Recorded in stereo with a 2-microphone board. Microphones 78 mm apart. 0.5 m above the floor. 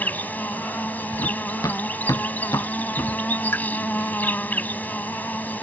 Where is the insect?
25° left (ahead or behind).